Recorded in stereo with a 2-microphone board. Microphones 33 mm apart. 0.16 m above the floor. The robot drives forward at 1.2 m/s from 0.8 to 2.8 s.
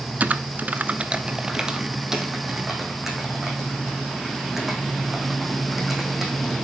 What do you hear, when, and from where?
0.2 s typing on a keyboard: 50° right (ahead or behind), 0.5 m; by 6.6 s 10° right (ahead or behind), 2.5 m